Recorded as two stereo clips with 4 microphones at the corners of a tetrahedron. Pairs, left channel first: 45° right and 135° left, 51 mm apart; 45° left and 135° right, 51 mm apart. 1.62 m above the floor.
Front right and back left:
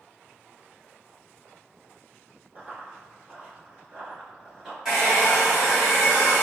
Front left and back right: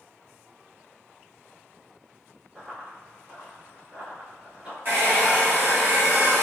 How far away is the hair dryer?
About 1.9 m.